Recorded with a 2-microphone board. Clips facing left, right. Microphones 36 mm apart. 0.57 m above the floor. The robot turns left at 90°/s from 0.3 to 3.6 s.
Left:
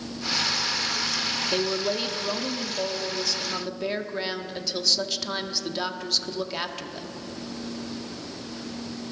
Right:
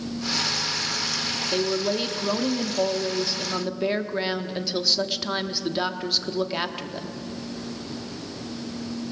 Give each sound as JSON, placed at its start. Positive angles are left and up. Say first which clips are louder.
{"t": 1.5, "sound": "a woman speaking", "louder": "right 3 dB", "side_deg": 15, "distance_m": 1.1}